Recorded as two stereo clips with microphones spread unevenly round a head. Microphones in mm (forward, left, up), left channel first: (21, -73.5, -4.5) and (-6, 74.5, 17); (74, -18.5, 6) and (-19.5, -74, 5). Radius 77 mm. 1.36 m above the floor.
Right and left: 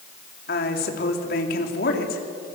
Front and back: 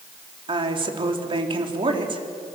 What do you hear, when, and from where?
0.5 s a woman speaking: 110° right, 3.5 m